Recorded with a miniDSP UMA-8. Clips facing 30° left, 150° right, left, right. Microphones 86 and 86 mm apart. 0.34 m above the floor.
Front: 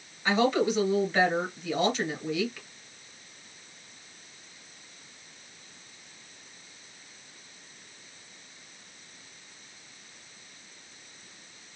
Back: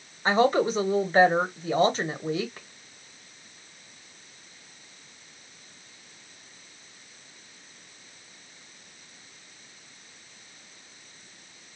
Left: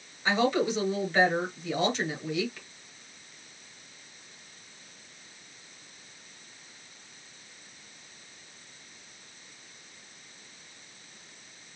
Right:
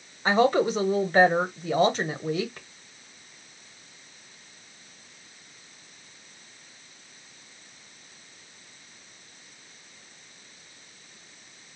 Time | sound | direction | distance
0.2 | a woman speaking | 115° right | 1.5 m